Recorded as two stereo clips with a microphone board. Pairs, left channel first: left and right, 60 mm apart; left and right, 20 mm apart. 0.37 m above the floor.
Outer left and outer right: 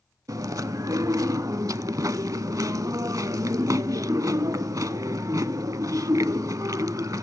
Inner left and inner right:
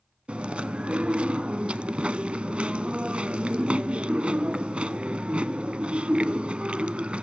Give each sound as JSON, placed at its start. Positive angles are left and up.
{"t": 0.3, "sound": "chewing", "side_deg": -75, "distance_m": 0.5}